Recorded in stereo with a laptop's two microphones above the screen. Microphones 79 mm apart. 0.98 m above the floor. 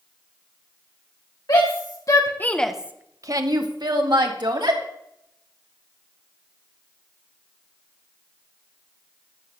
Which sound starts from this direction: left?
A shout, at 1.5 s.